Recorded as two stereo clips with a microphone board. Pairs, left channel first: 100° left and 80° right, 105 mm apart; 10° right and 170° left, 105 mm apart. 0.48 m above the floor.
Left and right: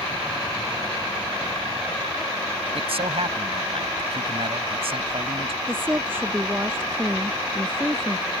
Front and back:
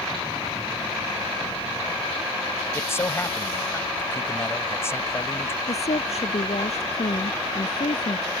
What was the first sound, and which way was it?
A man speaking, 75° right.